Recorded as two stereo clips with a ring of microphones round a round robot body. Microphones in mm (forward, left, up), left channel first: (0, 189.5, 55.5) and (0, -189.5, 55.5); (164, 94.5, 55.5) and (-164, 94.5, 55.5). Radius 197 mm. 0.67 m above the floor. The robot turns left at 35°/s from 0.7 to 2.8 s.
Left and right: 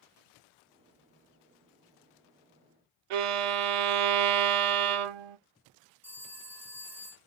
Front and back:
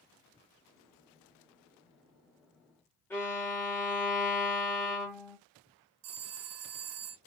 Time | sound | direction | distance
3.1 | a violin | 85° right | 0.5 m
6.0 | a phone ringing | 175° right | 0.7 m